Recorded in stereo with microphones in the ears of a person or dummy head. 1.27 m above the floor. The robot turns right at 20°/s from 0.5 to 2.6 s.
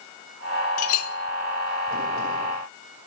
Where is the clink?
50° left (ahead or behind), 0.9 m; by 1.1 s 55° left (ahead or behind), 0.9 m.